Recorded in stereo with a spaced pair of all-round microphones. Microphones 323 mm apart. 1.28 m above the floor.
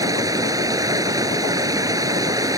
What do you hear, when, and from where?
0.0 s running water: 10° right (ahead or behind)